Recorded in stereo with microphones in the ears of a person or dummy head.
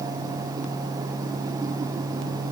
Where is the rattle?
No rattle in this recording.